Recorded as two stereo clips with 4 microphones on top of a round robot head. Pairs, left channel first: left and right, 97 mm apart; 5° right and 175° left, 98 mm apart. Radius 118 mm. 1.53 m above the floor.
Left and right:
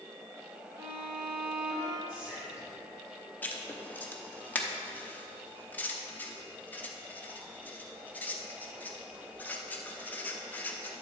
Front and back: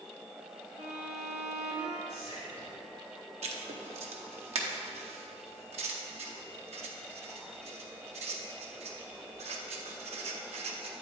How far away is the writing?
About 0.7 m.